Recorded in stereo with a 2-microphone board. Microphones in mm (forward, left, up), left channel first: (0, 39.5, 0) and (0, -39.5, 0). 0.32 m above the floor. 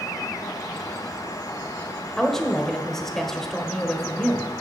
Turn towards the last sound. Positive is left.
turn(degrees=5)  # may be behind; listen again after turning